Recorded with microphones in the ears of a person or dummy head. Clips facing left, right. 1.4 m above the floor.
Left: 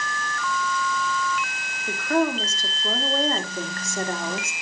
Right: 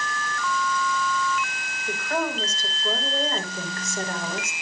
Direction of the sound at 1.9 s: 50° left (ahead or behind).